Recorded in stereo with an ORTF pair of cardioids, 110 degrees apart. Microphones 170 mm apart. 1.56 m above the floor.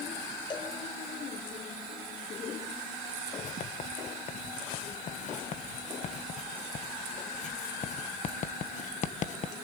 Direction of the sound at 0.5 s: 30° left.